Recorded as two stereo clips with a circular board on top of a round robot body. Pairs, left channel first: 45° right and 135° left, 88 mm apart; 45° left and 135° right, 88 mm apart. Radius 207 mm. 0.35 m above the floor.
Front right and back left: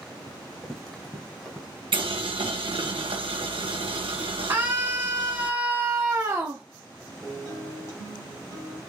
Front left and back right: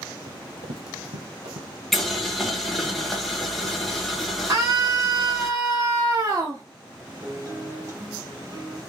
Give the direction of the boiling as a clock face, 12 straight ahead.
8 o'clock.